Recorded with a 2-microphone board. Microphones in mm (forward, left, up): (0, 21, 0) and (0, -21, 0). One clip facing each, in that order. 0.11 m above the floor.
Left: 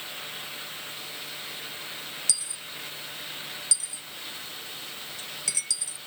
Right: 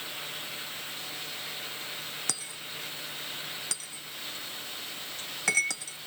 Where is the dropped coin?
50° right (ahead or behind).